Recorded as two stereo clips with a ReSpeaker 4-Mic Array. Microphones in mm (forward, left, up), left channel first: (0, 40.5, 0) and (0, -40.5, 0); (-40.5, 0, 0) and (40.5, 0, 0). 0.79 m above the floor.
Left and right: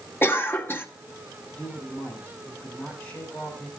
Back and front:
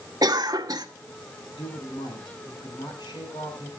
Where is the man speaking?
160° left, 7.5 m.